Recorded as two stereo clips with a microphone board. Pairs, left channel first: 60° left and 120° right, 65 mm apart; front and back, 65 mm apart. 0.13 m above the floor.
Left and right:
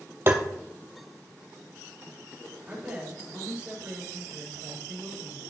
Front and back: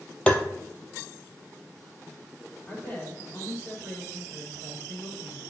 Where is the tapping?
70° right, 0.9 m.